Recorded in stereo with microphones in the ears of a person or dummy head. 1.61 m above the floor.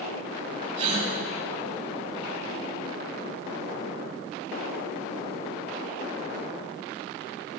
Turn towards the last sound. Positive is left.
turn(degrees=-35)  # may be behind; listen again after turning